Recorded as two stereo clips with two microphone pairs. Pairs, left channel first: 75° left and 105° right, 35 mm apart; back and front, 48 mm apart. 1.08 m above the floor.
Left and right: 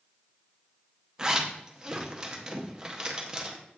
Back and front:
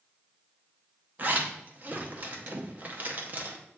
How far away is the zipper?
About 0.6 m.